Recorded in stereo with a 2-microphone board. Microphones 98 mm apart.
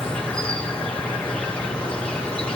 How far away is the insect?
About 2 m.